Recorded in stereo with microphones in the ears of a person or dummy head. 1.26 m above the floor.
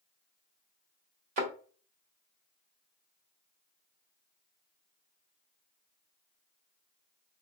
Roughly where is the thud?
Right.